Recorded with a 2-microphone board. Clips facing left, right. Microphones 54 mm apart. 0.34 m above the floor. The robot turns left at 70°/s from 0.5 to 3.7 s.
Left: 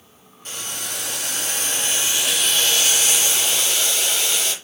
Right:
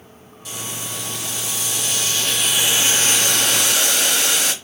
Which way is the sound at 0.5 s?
135° left.